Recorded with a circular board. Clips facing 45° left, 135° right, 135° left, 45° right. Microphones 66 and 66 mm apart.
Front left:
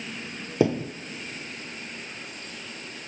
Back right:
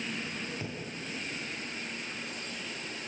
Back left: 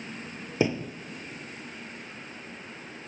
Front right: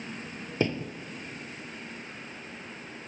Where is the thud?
55° left, 1.3 m.